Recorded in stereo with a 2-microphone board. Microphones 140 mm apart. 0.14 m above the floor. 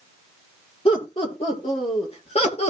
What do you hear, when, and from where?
0.8 s laughter: 40° left (ahead or behind), 5.5 m; by 2.7 s 50° left (ahead or behind), 3.5 m